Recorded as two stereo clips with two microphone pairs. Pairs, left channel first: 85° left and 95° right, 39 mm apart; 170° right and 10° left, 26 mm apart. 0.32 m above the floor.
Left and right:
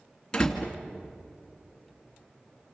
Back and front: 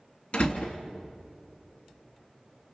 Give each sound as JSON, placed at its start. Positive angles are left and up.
{"t": 0.3, "sound": "a door slam", "azimuth_deg": 160, "distance_m": 2.5}